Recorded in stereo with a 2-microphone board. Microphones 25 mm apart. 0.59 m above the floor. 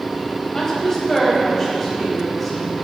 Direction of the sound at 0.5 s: 15° left (ahead or behind).